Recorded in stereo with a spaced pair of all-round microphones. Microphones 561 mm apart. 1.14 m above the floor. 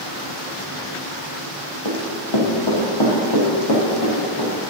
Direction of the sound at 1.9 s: 55° left (ahead or behind).